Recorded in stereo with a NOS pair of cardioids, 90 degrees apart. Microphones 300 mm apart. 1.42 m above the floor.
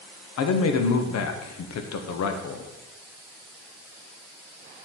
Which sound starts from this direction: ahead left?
A man speaking, at 0.4 s.